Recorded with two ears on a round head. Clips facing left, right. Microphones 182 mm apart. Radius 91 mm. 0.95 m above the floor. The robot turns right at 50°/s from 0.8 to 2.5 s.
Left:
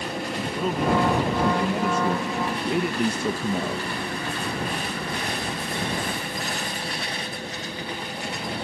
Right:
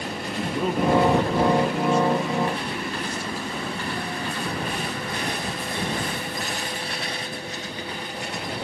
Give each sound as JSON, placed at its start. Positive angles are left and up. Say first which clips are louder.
{"t": 0.4, "sound": "a man speaking", "louder": "right 3 dB", "azimuth_deg": -5}